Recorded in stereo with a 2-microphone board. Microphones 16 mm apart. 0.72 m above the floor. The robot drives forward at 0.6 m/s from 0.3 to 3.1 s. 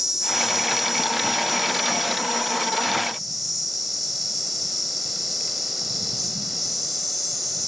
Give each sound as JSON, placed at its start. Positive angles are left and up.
{"t": 0.0, "sound": "an insect", "side_deg": -20, "distance_m": 0.8}